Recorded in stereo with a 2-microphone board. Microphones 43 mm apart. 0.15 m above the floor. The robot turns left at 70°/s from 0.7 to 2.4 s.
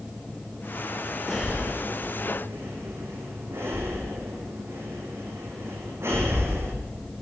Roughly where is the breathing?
Centre.